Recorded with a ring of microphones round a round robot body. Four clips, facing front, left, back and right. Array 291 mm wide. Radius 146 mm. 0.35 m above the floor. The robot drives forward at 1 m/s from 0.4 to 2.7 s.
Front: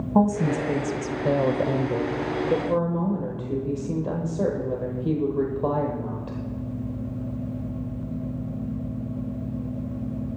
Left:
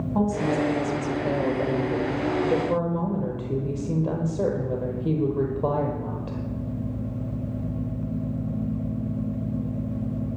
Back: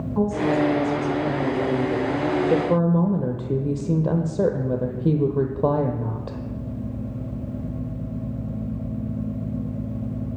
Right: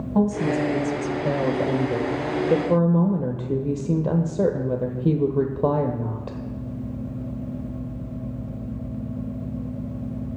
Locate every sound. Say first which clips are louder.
0.1 s a woman speaking: right 2 dB, even; 15° right, 2 m; by 6.4 s 140° right, 1.1 m